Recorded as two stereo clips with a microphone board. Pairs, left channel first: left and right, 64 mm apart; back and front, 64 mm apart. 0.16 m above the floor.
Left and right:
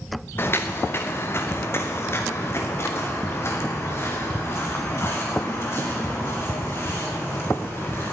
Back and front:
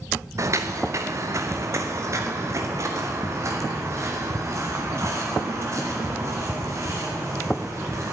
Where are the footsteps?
40° left, 1.3 m; by 8.1 s 45° left, 5.5 m.